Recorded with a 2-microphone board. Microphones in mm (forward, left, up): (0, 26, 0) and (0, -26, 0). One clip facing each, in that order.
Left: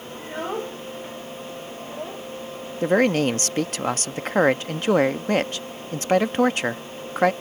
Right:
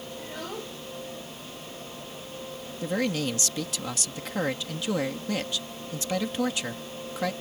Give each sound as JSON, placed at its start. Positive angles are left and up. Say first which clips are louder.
{"t": 0.2, "sound": "a child speaking", "louder": "left 10 dB", "side_deg": 25}
{"t": 2.8, "sound": "a man speaking", "louder": "left 9 dB", "side_deg": 50}